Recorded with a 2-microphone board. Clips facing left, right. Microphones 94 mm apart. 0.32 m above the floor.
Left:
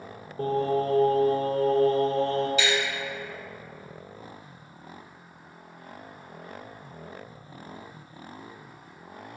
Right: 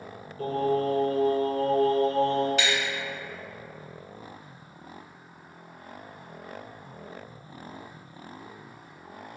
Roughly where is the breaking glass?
Right.